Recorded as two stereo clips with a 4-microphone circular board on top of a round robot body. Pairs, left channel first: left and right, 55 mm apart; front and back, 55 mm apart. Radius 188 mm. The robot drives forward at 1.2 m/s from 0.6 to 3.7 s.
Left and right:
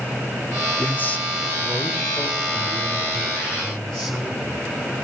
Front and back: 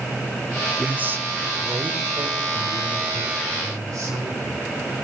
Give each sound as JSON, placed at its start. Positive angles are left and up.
{"t": 0.8, "sound": "a man speaking", "azimuth_deg": 110, "distance_m": 0.9}